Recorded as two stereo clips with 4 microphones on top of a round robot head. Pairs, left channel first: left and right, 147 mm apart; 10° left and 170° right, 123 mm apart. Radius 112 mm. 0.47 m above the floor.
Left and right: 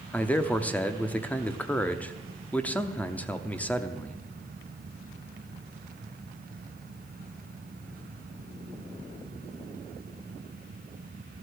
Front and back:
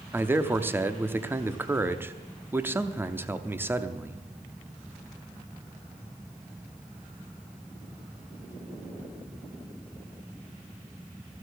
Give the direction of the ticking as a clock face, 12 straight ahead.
I don't hear ticking.